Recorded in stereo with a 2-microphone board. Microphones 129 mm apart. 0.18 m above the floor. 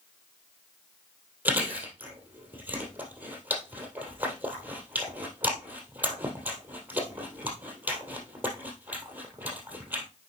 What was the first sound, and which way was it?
Chewing, 15° right (ahead or behind).